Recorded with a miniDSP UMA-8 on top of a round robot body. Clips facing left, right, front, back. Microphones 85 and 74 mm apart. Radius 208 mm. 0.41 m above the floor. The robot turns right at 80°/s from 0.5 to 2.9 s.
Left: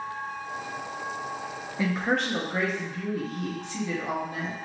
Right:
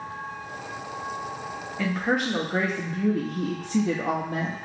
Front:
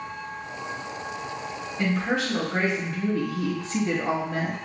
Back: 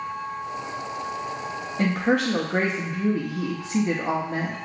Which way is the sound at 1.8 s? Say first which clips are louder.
Right 1 dB, back 3 dB; 160° left.